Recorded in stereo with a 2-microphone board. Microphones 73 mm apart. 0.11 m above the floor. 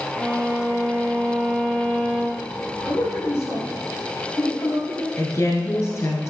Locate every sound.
0.2 s a violin: 20° right (ahead or behind), 1.1 m
2.8 s a man speaking: 35° left (ahead or behind), 2.5 m
5.2 s a woman speaking: 40° left (ahead or behind), 1.6 m